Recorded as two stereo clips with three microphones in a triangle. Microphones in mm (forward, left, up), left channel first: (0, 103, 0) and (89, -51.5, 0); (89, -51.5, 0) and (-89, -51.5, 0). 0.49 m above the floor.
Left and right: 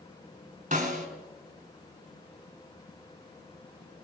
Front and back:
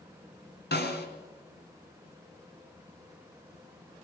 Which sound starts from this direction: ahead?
A snare drum, at 0.7 s.